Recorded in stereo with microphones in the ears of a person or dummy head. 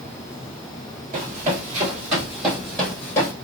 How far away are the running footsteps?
About 1.6 m.